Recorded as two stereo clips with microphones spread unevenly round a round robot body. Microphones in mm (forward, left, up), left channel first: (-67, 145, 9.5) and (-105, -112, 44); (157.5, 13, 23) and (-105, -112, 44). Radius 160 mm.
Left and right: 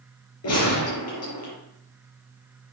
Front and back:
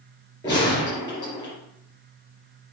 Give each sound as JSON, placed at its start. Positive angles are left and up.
{"t": 0.4, "sound": "a gunshot", "azimuth_deg": 105, "distance_m": 4.0}